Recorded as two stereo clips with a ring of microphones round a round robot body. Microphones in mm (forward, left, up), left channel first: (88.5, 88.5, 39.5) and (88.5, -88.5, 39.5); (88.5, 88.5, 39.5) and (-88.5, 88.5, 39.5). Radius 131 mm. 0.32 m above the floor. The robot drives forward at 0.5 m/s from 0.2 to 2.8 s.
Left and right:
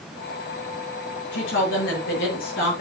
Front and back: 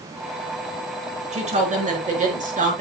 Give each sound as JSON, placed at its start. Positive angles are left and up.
{"t": 1.3, "sound": "a woman speaking", "azimuth_deg": 130, "distance_m": 5.0}